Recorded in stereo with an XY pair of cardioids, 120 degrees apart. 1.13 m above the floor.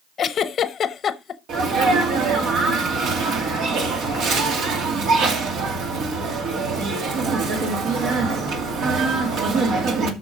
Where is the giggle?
45° left, 0.7 m.